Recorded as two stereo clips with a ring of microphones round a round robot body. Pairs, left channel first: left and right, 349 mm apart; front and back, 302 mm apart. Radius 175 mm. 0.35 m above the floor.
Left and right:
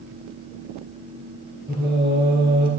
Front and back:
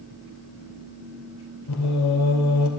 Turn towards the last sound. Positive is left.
turn(degrees=-25)